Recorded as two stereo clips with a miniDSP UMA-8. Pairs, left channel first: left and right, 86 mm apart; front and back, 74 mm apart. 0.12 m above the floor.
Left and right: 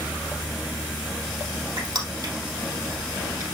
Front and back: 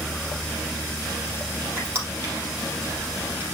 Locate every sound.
1.8 s crushing: 130° right, 4 m